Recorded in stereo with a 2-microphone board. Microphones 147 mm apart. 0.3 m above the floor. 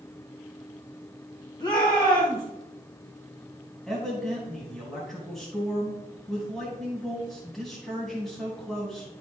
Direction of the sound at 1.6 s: 30° left (ahead or behind).